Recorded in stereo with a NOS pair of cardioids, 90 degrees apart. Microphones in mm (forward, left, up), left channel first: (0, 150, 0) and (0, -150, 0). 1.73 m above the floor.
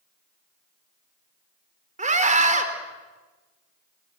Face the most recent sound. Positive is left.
turn(degrees=-25)